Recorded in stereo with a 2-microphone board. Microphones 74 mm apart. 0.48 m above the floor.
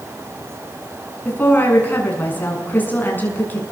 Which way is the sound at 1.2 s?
25° left (ahead or behind).